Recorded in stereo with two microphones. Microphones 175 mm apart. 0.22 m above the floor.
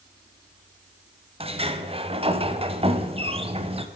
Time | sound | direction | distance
1.4 | a sliding door | 35° right (ahead or behind) | 0.6 m